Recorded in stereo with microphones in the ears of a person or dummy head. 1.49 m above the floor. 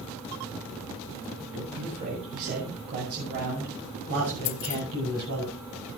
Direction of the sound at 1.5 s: 45° right (ahead or behind).